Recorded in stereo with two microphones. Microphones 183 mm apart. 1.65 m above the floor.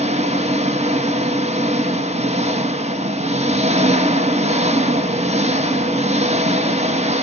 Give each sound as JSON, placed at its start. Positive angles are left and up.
{"t": 0.0, "sound": "an engine running", "side_deg": -35, "distance_m": 1.2}